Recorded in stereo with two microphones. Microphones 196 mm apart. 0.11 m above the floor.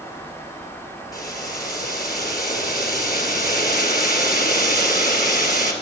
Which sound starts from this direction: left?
Boiling, at 1.1 s.